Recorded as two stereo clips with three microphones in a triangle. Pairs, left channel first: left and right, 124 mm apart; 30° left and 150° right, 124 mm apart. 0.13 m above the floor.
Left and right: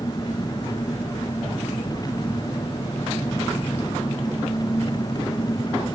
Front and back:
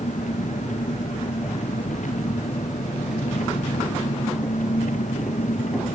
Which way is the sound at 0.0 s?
35° left.